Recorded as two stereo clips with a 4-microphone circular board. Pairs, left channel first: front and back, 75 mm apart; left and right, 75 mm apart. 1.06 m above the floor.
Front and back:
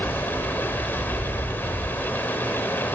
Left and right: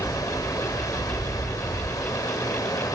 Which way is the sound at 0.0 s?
60° left.